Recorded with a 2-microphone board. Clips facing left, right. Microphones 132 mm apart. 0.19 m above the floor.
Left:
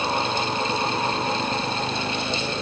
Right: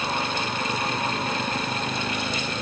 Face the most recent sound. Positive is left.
No sound to turn to.